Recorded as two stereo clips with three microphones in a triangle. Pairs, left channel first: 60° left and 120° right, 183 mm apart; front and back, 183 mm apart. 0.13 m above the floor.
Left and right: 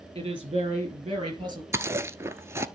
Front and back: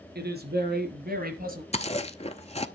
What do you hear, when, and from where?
0.1 s a woman speaking: 175° right, 3.5 m; by 1.6 s straight behind, 2.5 m
1.7 s chewing: 45° right, 0.6 m